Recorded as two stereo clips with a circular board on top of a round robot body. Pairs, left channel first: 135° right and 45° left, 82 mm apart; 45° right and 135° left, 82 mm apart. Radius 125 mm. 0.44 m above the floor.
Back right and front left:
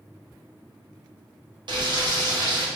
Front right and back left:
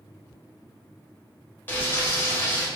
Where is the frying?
25° left, 1.3 m.